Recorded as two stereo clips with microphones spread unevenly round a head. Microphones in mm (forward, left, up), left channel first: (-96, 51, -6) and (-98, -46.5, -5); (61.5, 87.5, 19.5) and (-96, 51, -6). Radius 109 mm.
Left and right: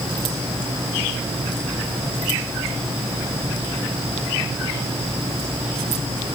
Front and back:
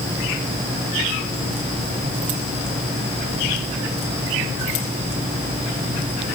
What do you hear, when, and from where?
Only background noise.